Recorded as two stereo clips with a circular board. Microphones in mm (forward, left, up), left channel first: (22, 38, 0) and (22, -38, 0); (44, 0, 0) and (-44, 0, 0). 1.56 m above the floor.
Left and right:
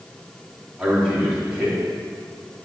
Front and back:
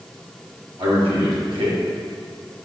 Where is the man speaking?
170° right, 4 m.